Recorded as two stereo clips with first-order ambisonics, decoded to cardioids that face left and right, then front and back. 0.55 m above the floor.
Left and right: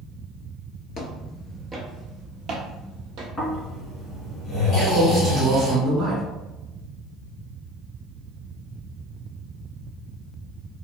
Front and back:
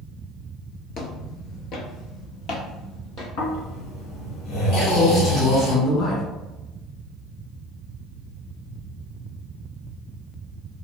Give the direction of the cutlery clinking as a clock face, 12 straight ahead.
No cutlery clinking in this recording.